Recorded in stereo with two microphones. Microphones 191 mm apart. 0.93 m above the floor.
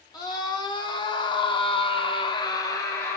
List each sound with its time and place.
0.1 s a scream: 20° left (ahead or behind), 1.4 m; by 3.2 s 10° left (ahead or behind), 0.8 m